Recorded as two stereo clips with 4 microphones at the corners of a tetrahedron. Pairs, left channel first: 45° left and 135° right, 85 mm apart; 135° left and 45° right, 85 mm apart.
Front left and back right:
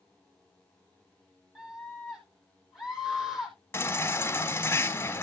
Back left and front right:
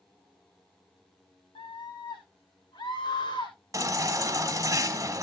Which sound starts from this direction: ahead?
A baby crying, at 3.7 s.